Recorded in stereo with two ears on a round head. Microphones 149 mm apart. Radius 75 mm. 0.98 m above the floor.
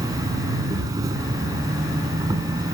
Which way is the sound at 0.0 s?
25° right (ahead or behind).